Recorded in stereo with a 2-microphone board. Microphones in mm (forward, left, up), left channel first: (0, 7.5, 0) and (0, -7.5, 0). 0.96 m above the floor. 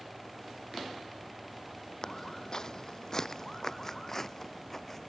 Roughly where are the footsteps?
Left.